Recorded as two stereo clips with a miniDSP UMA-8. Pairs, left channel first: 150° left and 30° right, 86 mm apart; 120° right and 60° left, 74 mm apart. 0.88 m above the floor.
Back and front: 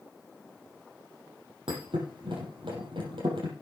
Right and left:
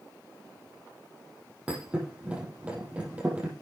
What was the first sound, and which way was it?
A thud, 15° right.